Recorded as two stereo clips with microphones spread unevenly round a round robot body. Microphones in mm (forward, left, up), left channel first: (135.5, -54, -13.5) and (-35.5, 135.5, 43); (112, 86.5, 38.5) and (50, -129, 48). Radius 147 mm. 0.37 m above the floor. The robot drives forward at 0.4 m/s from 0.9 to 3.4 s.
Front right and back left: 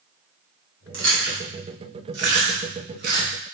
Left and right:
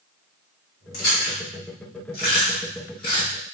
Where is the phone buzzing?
I don't hear a phone buzzing.